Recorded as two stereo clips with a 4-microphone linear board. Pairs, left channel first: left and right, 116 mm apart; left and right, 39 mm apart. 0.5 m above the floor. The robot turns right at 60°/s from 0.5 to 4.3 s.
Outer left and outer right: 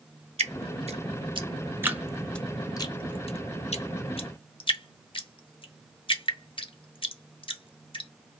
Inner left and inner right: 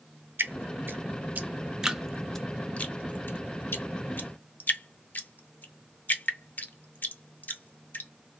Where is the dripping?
65° right (ahead or behind), 0.5 m; by 8.1 s 50° left (ahead or behind), 0.5 m.